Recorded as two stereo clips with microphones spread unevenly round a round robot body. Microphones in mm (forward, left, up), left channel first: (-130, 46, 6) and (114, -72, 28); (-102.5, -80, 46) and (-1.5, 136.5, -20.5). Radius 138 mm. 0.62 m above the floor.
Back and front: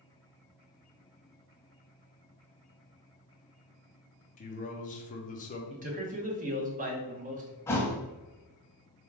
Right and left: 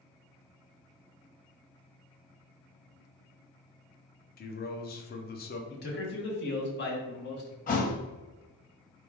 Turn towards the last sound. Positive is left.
turn(degrees=-125)